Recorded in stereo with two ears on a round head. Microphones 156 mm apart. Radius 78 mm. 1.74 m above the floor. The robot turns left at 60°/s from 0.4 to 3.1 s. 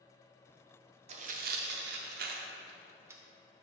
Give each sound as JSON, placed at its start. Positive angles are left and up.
{"t": 1.1, "sound": "tearing paper", "side_deg": -40, "distance_m": 0.6}